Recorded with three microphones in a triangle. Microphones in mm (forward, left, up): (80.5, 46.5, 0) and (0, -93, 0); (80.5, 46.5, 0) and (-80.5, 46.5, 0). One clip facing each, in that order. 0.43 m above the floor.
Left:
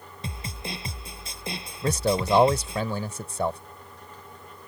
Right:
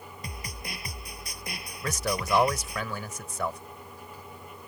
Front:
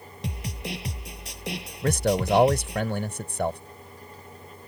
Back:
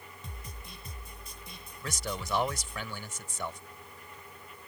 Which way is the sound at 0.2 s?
5° right.